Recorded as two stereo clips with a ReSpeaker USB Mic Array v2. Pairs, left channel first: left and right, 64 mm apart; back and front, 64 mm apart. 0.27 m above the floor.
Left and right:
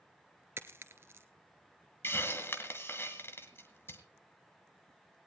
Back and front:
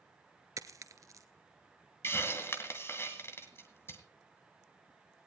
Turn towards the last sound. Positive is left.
turn(degrees=135)